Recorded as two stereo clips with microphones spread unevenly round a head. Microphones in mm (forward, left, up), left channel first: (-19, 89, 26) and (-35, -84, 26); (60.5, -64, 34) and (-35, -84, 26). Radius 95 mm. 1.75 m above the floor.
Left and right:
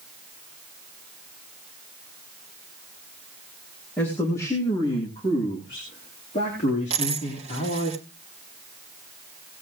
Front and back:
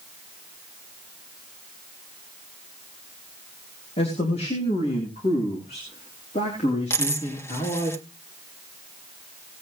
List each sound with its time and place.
4.0 s a man speaking: 5° left, 2.5 m; by 7.9 s 35° left, 4.5 m
6.9 s a dropped coin: 40° right, 1.6 m